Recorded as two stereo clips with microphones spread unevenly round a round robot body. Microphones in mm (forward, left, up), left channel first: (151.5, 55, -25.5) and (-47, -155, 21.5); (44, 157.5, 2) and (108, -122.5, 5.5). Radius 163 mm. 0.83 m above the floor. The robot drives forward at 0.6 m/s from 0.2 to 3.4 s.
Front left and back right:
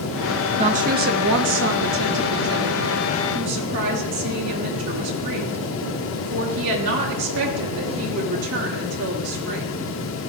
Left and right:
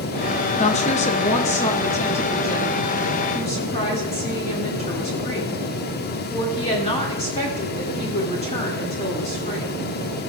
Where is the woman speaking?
155° left, 0.6 m; by 9.7 s 175° left, 2 m.